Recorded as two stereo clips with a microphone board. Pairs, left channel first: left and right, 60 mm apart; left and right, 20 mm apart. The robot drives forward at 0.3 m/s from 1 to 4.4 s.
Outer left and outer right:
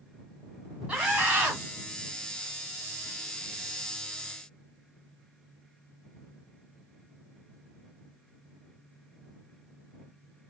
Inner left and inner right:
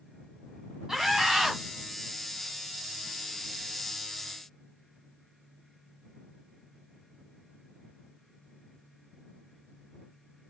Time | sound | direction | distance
0.9 | a scream | 20° right (ahead or behind) | 1.4 m